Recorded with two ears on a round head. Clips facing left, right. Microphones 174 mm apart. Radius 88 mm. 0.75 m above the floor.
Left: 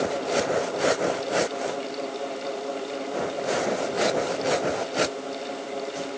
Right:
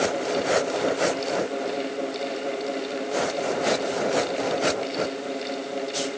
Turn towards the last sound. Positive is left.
No sound to turn to.